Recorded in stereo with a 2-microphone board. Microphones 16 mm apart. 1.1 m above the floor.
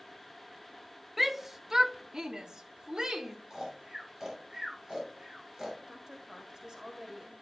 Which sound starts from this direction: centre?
A shout, at 1.2 s.